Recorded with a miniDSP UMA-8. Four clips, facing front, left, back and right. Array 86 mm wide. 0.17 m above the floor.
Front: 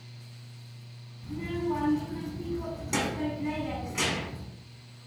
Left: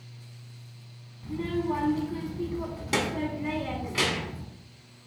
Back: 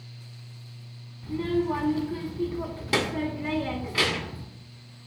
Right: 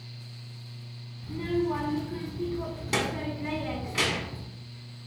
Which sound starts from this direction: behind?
A child speaking, at 1.2 s.